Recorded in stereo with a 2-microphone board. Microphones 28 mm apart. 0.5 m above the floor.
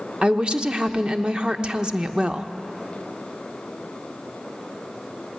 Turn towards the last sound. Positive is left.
turn(degrees=-35)  # may be behind; listen again after turning